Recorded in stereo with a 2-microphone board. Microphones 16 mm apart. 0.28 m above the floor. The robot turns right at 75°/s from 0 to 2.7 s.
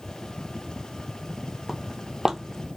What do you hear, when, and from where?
1.7 s footsteps: 10° right (ahead or behind), 0.6 m; by 2.7 s 70° right (ahead or behind), 0.6 m